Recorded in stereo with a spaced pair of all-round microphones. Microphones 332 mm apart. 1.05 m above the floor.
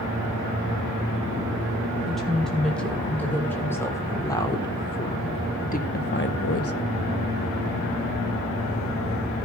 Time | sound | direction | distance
2.1 | a woman speaking | centre (ahead or behind) | 5 m